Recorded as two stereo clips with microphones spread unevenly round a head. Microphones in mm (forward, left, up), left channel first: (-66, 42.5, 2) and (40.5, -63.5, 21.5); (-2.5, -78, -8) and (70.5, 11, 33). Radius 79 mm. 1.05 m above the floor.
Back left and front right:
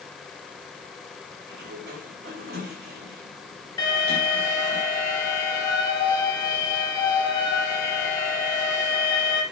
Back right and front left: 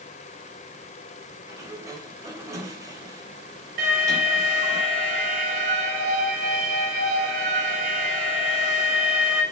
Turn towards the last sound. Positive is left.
turn(degrees=70)